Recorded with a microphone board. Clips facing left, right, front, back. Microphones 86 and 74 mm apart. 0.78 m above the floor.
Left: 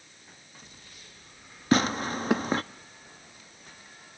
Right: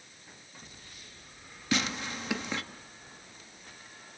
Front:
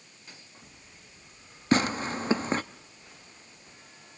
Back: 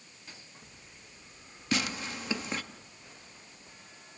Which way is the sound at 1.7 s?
50° left.